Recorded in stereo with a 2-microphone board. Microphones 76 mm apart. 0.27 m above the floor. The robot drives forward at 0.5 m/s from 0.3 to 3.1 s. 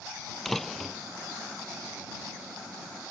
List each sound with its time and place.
0.5 s a door slam: 5° left (ahead or behind)